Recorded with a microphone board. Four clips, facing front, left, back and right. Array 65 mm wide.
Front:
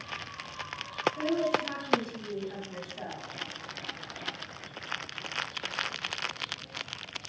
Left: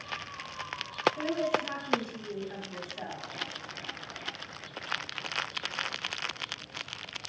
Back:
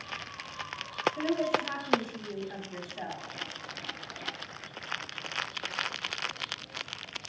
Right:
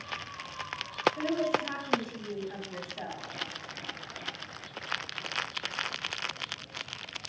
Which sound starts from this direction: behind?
A woman speaking, at 1.2 s.